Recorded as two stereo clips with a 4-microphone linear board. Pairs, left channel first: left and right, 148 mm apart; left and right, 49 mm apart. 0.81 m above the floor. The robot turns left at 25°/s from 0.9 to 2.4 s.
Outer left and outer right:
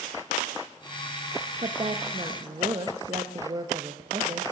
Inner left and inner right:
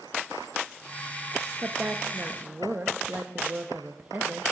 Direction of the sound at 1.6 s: 40° right (ahead or behind).